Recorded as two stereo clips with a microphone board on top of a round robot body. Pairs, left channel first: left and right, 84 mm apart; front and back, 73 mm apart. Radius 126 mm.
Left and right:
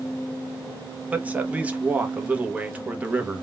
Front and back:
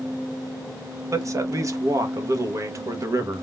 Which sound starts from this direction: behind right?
A man speaking, at 1.1 s.